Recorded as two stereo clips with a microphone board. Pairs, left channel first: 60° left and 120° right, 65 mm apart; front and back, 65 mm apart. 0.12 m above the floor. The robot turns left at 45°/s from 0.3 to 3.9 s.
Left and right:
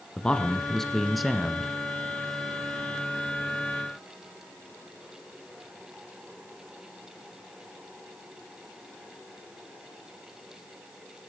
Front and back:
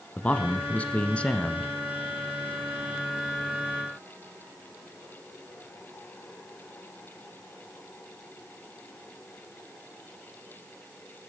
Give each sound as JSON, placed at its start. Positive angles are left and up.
{"t": 0.2, "sound": "a man speaking", "azimuth_deg": 15, "distance_m": 1.1}